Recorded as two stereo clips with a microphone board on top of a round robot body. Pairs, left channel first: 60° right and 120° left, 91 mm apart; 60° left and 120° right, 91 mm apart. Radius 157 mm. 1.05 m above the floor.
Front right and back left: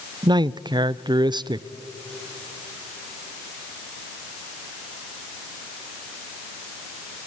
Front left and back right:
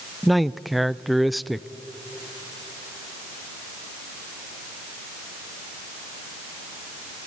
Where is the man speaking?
150° left, 0.7 m.